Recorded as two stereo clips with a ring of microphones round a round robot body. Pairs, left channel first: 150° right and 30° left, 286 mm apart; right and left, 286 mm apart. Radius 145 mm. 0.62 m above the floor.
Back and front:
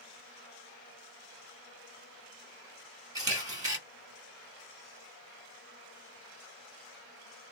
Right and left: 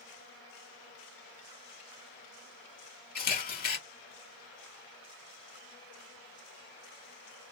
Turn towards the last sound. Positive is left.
turn(degrees=-40)